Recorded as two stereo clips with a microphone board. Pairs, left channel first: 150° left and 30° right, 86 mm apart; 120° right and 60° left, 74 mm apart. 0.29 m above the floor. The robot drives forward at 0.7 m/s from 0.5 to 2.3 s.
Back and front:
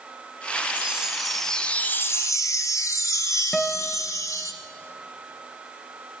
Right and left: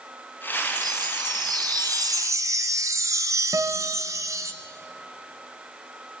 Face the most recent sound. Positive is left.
turn(degrees=70)